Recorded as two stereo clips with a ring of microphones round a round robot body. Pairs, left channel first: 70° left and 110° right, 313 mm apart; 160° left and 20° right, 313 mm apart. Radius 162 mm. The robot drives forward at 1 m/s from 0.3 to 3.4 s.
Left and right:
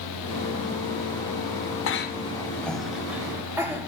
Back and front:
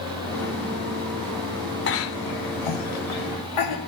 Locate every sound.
1.9 s a cough: 105° left, 0.6 m; by 3.9 s 165° left, 1.8 m